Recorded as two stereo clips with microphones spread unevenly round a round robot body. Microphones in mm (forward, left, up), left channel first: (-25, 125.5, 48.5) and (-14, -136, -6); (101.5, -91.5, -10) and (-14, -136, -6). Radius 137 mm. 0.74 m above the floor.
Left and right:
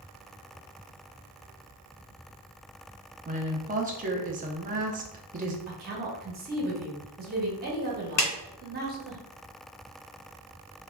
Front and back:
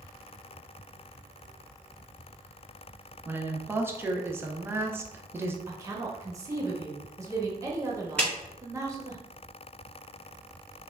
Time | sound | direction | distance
3.2 | a woman speaking | 95° right | 0.6 m
5.7 | a woman speaking | 100° right | 0.9 m
8.2 | a clap | 105° left | 1.2 m